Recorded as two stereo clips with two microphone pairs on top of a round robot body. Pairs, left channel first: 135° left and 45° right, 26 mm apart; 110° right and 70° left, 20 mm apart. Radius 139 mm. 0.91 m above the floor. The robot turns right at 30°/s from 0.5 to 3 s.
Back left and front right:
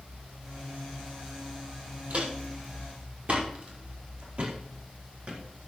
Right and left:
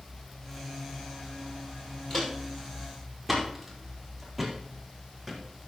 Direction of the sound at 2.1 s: 45° right.